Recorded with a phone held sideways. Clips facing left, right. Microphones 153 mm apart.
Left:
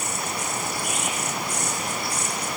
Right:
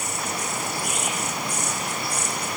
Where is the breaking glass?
No breaking glass in this recording.